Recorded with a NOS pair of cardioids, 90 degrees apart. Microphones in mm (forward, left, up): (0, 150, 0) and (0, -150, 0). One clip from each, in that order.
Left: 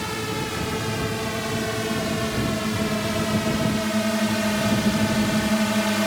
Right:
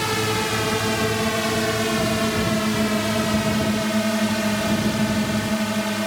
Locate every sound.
0.0 s a drone: 45° right; by 6.1 s 15° left